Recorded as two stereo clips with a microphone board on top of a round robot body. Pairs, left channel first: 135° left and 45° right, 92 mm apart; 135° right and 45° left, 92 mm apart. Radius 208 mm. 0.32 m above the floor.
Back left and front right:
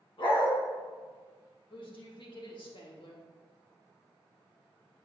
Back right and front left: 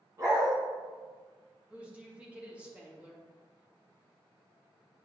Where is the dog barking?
100° left, 1.7 m.